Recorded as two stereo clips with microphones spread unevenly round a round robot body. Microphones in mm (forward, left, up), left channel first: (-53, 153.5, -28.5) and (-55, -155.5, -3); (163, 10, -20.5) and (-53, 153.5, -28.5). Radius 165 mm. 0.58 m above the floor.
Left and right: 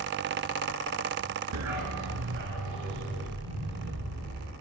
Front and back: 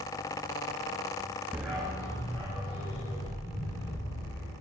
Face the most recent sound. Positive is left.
turn(degrees=-95)